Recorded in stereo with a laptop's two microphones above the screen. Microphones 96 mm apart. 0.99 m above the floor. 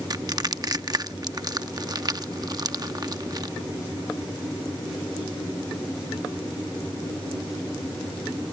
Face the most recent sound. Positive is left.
turn(degrees=-45)  # may be behind; listen again after turning